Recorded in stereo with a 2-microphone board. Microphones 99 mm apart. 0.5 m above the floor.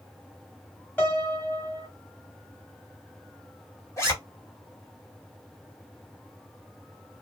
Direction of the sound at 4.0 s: 30° left (ahead or behind).